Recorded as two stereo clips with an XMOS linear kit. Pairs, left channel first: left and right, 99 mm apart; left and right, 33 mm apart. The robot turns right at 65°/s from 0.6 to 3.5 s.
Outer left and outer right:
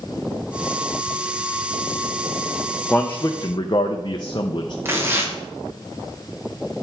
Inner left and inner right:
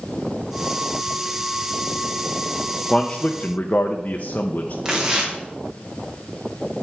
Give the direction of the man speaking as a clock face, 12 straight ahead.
12 o'clock.